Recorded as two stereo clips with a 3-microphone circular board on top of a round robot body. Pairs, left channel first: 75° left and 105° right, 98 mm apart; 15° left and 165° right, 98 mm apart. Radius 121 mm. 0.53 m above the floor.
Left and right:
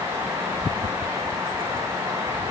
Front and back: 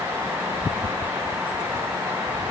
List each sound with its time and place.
Only background noise.